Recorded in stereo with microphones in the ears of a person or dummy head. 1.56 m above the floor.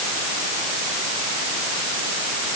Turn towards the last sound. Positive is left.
No sound to turn to.